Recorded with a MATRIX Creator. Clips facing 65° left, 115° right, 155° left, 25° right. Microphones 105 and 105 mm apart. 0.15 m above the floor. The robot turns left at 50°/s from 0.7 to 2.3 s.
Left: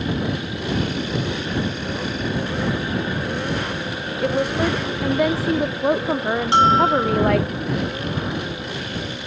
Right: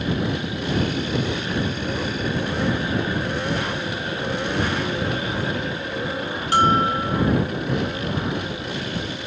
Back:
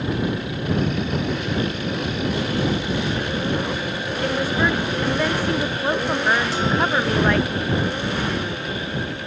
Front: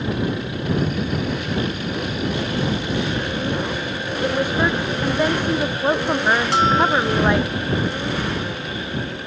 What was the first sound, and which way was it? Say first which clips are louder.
A woman speaking: left 6 dB, front 1 dB; 50° left.